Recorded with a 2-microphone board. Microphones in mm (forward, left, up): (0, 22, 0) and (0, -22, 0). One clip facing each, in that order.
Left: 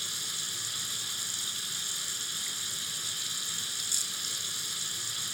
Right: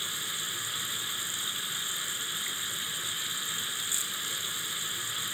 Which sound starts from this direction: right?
Running water, at 0.0 s.